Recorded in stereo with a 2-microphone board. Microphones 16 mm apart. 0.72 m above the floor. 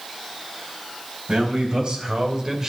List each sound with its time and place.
1.3 s a man speaking: 65° right (ahead or behind), 3.5 m; by 2.7 s 30° right (ahead or behind), 2 m